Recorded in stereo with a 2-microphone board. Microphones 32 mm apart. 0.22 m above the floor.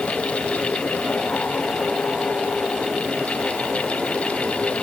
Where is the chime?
I don't hear a chime.